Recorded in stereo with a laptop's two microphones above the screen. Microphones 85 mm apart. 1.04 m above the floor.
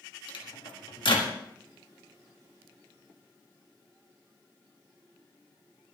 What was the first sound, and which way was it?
A microwave, 70° left (ahead or behind).